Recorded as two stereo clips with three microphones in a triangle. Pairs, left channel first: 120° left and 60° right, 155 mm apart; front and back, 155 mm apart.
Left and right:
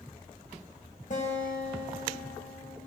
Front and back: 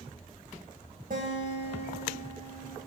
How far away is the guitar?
About 2.0 m.